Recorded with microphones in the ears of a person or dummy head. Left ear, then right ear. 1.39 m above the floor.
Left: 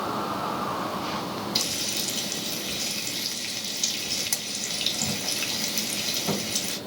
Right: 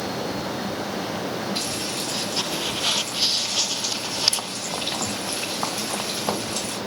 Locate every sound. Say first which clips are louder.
1.6 s frying: even; 55° left (ahead or behind), 2.5 m